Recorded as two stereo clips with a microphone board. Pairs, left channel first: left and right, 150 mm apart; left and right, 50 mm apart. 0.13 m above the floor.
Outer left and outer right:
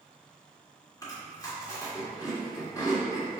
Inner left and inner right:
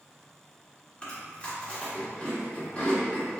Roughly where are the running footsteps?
I don't hear running footsteps.